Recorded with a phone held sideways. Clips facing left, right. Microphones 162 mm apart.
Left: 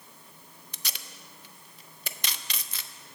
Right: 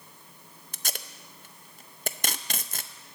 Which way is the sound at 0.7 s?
45° right (ahead or behind).